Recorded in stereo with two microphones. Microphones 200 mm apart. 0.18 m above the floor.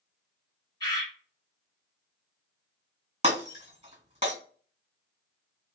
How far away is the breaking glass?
About 2 m.